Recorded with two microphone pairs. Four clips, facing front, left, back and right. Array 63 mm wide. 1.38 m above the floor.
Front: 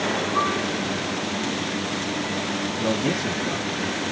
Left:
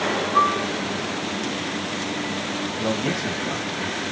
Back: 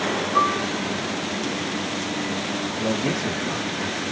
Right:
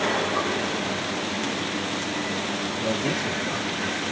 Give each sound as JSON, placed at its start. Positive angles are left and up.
{"t": 0.3, "sound": "a piano", "azimuth_deg": 125, "distance_m": 1.9}
{"t": 2.8, "sound": "a man speaking", "azimuth_deg": 85, "distance_m": 2.0}